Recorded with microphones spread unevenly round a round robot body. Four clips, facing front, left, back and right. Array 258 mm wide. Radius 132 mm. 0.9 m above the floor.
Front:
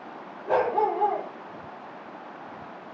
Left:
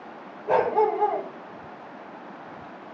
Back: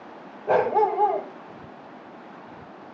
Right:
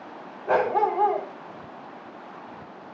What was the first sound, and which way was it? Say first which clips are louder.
A dog barking: left 1 dB, back 3 dB; 175° left.